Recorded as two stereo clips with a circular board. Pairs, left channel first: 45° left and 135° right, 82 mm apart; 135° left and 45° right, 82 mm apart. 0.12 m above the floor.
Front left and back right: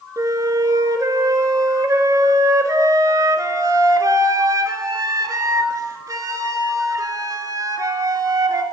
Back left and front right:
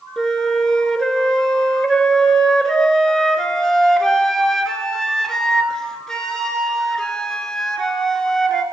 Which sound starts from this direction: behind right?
A flute, at 0.2 s.